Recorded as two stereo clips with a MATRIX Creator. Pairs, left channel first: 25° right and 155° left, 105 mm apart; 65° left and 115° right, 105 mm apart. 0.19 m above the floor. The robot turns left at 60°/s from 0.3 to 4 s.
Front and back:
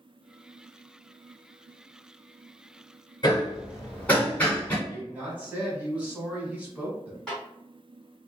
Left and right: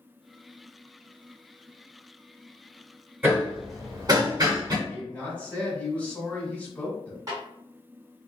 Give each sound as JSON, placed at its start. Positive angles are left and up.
{"t": 3.2, "sound": "hammering", "azimuth_deg": -45, "distance_m": 1.5}
{"t": 4.9, "sound": "a man speaking", "azimuth_deg": 115, "distance_m": 1.1}
{"t": 7.3, "sound": "a snare drum", "azimuth_deg": -100, "distance_m": 1.9}